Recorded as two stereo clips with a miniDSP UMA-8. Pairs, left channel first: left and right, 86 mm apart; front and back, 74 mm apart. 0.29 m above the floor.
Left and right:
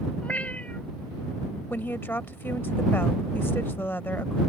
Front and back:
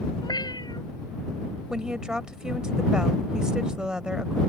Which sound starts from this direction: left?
A woman speaking, at 1.7 s.